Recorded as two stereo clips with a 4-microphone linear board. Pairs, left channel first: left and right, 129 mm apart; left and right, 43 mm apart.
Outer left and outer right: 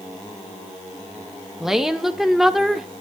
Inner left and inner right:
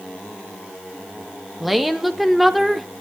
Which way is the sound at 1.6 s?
5° right (ahead or behind).